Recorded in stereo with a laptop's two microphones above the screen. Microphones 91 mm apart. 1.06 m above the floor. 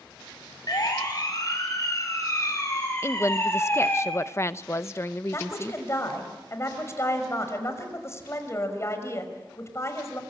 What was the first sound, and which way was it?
A siren, 45° left (ahead or behind).